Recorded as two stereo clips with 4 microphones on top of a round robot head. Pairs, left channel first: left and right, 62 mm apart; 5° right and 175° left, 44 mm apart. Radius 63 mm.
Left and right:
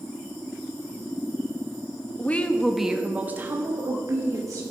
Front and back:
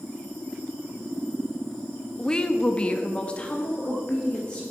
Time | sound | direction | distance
2.2 | a woman speaking | 50° left | 0.9 m